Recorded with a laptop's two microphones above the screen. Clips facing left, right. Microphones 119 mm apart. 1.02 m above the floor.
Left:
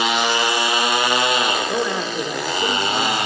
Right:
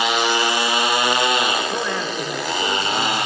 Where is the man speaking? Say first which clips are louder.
Left 2 dB; 15° left (ahead or behind), 3.5 m.